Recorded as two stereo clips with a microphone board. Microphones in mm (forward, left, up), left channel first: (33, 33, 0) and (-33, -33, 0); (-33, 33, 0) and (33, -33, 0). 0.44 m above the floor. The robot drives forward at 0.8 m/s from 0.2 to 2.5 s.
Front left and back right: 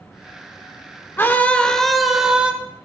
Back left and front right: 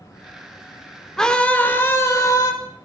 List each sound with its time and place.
1.2 s a scream: 60° left, 1.2 m; by 2.5 s 155° left, 1.4 m